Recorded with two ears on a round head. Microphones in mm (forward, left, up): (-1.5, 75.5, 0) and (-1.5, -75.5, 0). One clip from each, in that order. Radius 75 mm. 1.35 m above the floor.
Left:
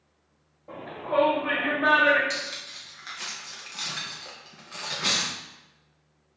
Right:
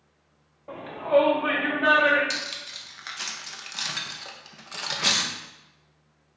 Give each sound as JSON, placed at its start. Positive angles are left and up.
{"t": 0.7, "sound": "a shout", "side_deg": -60, "distance_m": 0.7}
{"t": 2.3, "sound": "cutlery clinking", "side_deg": -25, "distance_m": 0.5}